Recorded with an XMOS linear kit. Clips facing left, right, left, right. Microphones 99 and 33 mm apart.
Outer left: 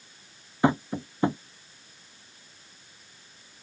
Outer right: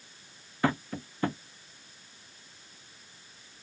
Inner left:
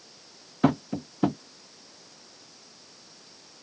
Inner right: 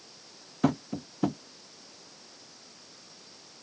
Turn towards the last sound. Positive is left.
turn(degrees=20)  # may be behind; listen again after turning